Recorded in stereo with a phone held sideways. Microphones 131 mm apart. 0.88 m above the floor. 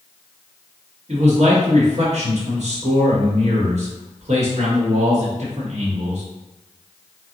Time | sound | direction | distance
1.1 | a man speaking | 60° right (ahead or behind) | 1.0 m